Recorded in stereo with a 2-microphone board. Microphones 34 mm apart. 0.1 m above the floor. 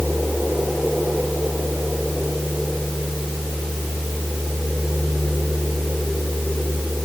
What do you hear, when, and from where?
Only background noise.